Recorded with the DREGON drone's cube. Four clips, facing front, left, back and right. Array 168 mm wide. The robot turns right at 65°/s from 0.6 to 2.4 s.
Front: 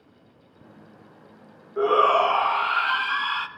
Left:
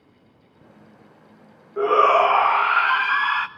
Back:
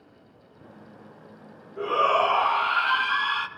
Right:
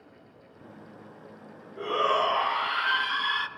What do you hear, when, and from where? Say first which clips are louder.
1.8 s a shout: left 10 dB, front 4 dB; 50° left, 1.8 m; by 3.5 s 95° left, 1.8 m